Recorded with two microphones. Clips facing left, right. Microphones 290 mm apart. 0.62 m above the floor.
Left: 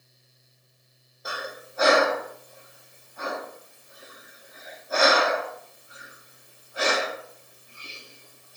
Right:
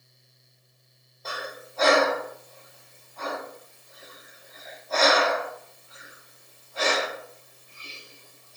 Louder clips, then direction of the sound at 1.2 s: Left 1 dB; 15° left (ahead or behind).